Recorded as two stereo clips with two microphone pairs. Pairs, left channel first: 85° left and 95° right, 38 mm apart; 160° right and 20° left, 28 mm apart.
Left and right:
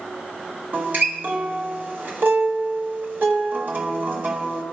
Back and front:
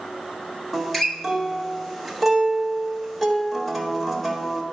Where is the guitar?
65° right, 1.4 m.